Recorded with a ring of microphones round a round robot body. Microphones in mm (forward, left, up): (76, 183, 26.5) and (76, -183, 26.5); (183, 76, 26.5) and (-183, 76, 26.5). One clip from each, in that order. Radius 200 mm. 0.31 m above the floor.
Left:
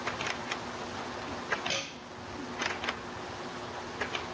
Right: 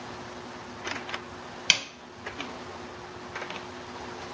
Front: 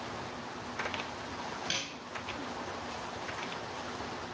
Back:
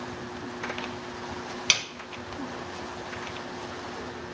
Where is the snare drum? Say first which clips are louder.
Right 15 dB, back 12 dB; 130° right, 0.8 m.